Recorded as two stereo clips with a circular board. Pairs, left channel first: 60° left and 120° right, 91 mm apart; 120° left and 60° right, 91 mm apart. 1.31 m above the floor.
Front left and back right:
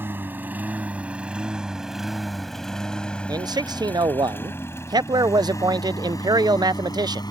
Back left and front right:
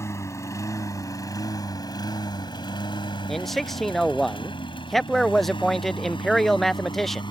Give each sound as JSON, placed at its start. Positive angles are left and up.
{"t": 0.0, "sound": "a lawn mower", "azimuth_deg": 175}
{"t": 3.3, "sound": "a man speaking", "azimuth_deg": -155}